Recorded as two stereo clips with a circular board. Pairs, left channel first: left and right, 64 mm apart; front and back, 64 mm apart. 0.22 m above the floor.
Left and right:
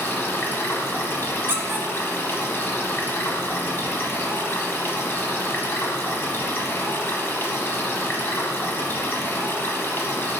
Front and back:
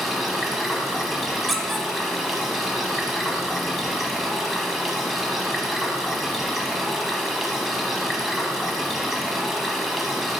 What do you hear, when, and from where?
0.0 s running water: 95° left, 1.1 m
1.5 s a squeak: 95° right, 1.0 m